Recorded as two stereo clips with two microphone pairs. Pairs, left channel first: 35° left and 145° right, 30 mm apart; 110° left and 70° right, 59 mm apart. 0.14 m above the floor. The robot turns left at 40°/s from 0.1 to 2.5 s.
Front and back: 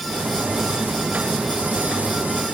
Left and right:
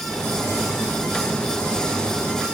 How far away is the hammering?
No hammering in this recording.